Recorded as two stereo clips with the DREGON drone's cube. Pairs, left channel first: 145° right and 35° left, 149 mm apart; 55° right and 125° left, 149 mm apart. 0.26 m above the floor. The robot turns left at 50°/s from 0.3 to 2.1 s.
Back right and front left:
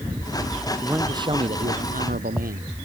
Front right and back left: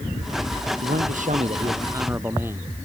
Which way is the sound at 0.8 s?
115° left.